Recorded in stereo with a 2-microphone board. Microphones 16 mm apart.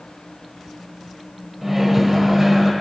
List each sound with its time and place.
1.6 s a microwave: 10° right (ahead or behind), 1.2 m